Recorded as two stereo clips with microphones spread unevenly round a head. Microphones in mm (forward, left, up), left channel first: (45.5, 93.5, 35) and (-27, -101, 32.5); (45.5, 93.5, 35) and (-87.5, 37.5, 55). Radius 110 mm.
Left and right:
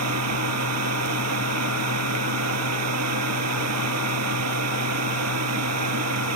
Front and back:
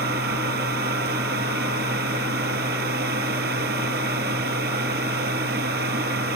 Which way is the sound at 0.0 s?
120° right.